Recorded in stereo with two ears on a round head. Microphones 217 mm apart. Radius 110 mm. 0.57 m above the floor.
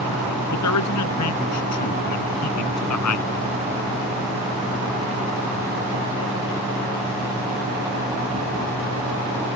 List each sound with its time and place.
0.5 s a man speaking: 80° left